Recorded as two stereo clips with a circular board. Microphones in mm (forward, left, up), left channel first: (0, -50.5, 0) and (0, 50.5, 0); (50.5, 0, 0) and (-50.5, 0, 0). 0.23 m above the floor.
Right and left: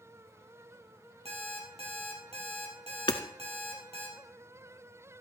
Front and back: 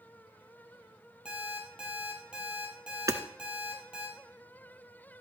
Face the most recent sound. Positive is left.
turn(degrees=-125)